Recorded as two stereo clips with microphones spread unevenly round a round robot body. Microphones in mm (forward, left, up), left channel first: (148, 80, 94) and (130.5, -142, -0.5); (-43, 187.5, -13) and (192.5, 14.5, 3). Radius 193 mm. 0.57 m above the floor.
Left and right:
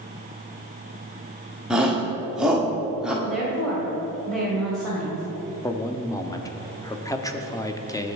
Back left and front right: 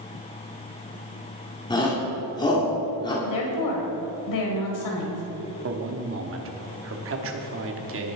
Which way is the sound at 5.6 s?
10° right.